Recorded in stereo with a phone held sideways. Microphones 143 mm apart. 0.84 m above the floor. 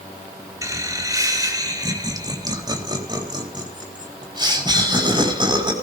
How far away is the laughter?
About 2.5 m.